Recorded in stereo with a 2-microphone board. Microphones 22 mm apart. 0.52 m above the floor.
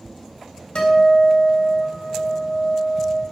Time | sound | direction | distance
0.8 | a guitar | 45° left (ahead or behind) | 3.5 m